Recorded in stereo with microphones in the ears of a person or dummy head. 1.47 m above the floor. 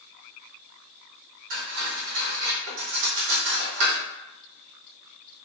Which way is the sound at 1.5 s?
65° right (ahead or behind).